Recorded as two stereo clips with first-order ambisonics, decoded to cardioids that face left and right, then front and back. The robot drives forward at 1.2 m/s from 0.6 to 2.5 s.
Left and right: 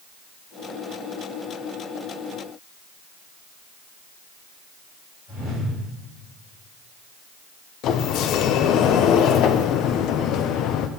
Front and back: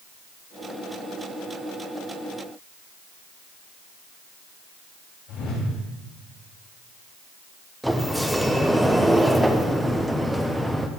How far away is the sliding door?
About 0.6 m.